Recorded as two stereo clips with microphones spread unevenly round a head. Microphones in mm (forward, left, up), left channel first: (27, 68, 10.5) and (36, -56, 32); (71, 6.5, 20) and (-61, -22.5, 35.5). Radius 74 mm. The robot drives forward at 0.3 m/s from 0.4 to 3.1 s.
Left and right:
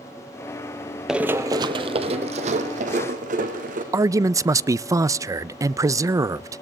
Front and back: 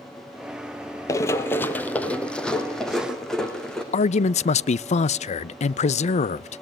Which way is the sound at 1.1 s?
35° right.